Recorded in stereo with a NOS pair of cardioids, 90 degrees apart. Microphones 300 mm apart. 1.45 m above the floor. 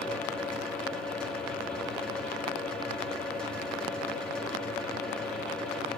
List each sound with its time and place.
0.0 s a fan: 5° left, 1.8 m